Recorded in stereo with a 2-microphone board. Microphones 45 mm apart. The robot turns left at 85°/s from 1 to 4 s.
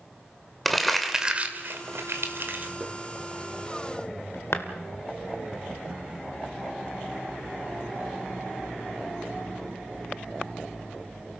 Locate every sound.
0.7 s crumpling: centre (ahead or behind), 2 m; by 4.6 s 75° left (ahead or behind), 2 m